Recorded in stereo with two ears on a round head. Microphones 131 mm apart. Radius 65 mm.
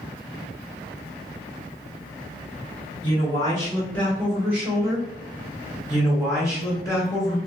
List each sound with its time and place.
3.0 s a man speaking: 35° left (ahead or behind), 1.5 m; by 5.1 s 25° right (ahead or behind), 1.3 m
5.9 s a man speaking: 20° left (ahead or behind), 1.3 m